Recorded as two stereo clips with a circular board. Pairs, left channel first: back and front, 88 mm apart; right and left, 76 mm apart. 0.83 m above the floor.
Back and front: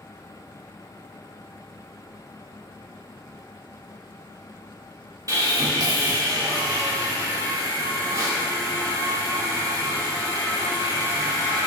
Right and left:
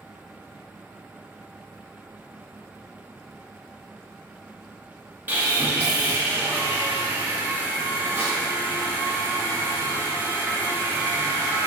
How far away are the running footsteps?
I don't hear running footsteps.